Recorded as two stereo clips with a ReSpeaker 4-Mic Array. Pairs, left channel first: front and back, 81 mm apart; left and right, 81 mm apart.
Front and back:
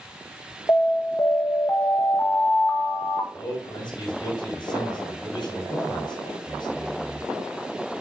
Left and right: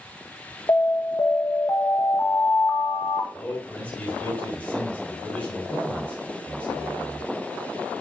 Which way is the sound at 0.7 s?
45° left.